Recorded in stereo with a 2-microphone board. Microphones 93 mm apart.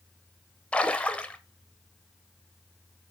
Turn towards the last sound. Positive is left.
turn(degrees=10)  # may be behind; listen again after turning